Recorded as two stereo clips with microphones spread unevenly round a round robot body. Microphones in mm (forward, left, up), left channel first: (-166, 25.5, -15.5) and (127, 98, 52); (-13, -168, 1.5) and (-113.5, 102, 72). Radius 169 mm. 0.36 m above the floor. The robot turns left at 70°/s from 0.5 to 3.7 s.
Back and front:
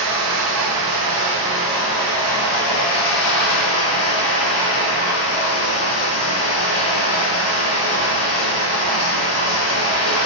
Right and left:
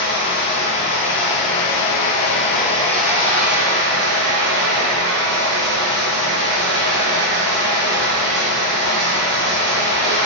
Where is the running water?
10° left, 0.9 m; by 10.3 s 145° left, 0.9 m.